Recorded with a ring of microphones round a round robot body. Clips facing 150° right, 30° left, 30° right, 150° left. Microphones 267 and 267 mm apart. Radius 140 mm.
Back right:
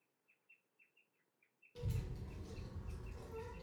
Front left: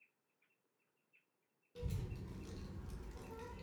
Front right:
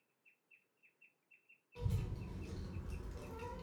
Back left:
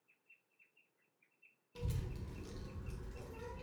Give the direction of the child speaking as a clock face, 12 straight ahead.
8 o'clock.